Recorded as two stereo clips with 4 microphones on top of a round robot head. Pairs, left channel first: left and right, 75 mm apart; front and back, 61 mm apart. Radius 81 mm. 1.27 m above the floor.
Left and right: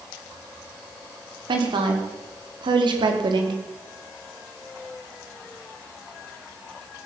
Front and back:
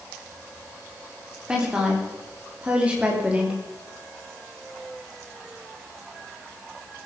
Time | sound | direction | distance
1.5 | a woman speaking | 100° right | 3.5 m